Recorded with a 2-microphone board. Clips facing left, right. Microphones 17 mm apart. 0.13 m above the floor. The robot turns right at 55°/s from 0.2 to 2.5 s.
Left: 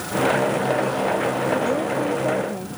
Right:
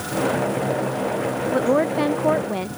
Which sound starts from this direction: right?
A woman speaking, at 1.5 s.